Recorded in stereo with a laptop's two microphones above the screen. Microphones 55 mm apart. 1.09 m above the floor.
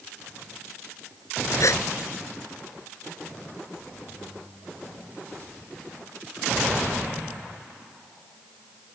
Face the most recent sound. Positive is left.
turn(degrees=65)  # may be behind; listen again after turning